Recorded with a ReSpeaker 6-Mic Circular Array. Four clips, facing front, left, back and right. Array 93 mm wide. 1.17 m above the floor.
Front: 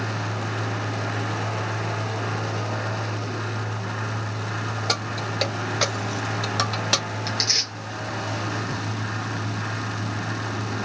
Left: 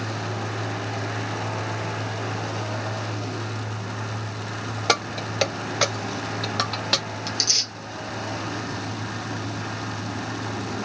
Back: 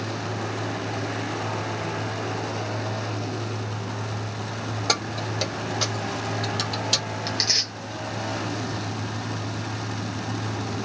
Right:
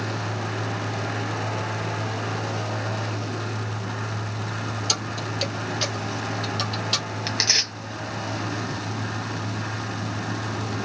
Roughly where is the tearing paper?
Right.